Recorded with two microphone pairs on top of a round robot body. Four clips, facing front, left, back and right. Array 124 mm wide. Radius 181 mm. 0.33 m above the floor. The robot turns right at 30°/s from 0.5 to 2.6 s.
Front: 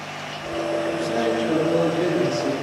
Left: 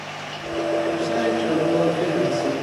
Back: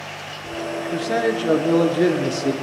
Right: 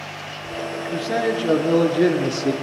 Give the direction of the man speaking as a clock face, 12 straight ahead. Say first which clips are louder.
Left 1 dB, back 1 dB; 5 o'clock.